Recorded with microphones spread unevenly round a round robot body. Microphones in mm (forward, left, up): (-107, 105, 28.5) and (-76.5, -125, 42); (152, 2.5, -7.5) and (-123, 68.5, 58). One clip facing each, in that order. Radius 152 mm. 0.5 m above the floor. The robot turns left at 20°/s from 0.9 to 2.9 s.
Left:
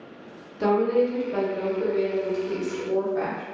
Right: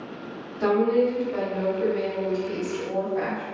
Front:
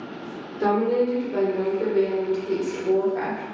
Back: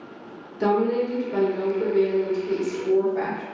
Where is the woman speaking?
80° left, 1.0 m; by 3.5 s 40° left, 1.0 m.